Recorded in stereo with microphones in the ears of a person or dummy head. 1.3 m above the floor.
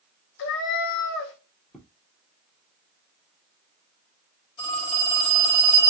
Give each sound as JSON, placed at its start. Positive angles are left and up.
{"t": 0.4, "sound": "a cat meowing", "side_deg": 60, "distance_m": 1.0}
{"t": 1.7, "sound": "footsteps", "side_deg": -5, "distance_m": 1.4}
{"t": 4.6, "sound": "a phone ringing", "side_deg": 30, "distance_m": 1.8}